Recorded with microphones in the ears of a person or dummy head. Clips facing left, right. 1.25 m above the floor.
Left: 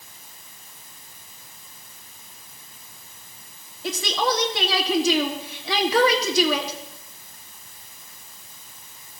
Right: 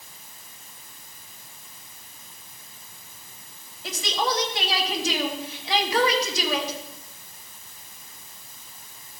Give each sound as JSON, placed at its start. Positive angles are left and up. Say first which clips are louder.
{"t": 3.8, "sound": "a woman speaking", "louder": "left 3 dB", "side_deg": 80, "distance_m": 2.5}